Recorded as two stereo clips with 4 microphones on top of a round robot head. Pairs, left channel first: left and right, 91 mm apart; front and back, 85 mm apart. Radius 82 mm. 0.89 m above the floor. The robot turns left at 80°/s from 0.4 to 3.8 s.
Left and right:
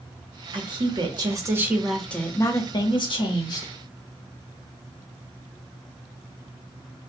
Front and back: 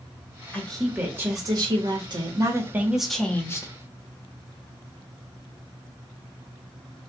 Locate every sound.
0.5 s a woman speaking: 70° right, 1.6 m; by 3.7 s 35° left, 1.6 m